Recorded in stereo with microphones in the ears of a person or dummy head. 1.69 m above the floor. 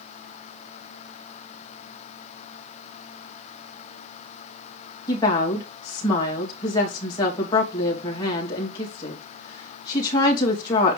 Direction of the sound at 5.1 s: 25° left (ahead or behind).